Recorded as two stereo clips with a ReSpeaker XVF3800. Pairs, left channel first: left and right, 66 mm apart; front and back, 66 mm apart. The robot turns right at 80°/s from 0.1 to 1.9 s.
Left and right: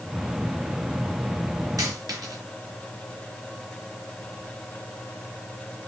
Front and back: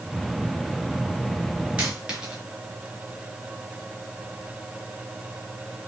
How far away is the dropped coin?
About 4 m.